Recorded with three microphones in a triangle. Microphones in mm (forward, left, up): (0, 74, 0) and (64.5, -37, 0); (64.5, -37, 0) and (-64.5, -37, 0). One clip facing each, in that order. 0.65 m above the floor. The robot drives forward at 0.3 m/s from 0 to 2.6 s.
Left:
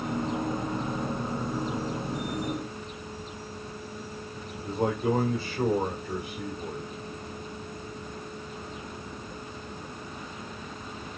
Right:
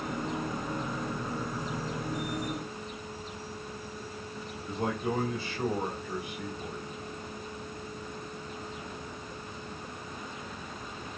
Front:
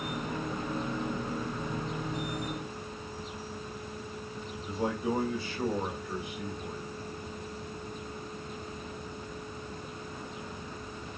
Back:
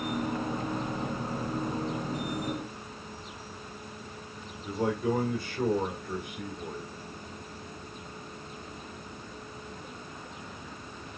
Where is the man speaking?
165° left, 2.5 m.